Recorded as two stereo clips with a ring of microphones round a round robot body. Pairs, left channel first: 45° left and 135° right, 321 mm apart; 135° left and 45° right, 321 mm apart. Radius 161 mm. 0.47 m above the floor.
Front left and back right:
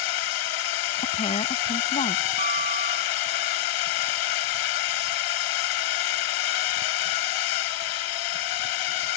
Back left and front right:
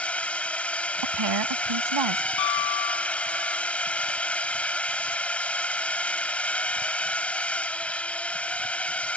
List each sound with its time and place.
0.0 s a drone: 50° left
1.0 s a woman speaking: 25° right
2.4 s a piano: 155° left